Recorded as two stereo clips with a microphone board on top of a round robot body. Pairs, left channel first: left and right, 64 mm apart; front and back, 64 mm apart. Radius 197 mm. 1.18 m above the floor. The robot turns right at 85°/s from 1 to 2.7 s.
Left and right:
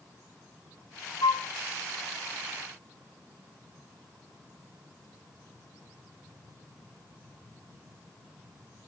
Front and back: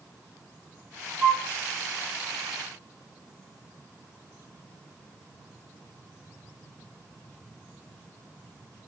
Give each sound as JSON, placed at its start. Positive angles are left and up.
{"t": 1.2, "sound": "a flute", "azimuth_deg": 110, "distance_m": 0.9}